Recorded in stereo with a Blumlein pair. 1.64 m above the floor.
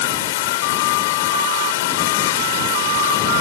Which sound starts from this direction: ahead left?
Running water, at 0.0 s.